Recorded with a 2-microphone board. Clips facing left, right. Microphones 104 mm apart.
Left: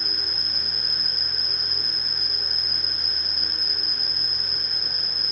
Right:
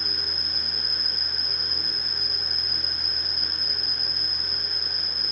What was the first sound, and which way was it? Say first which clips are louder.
An insect: even; 50° right (ahead or behind).